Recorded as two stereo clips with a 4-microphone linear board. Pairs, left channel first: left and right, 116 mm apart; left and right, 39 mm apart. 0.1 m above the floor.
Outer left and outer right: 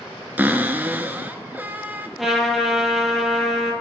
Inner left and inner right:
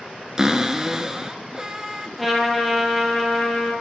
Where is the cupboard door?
20° right (ahead or behind), 0.8 m.